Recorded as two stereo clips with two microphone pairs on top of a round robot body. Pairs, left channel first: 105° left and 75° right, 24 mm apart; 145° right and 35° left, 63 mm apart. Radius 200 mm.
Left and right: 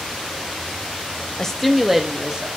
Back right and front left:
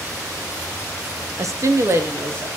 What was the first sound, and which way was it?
A woman speaking, 35° left.